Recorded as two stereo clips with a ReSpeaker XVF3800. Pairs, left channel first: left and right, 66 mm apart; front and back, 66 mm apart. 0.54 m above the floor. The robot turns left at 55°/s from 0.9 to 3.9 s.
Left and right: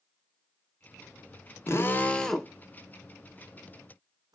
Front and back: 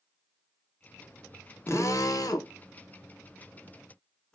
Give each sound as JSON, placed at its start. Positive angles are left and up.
{"t": 1.7, "sound": "a drill", "azimuth_deg": 45, "distance_m": 0.6}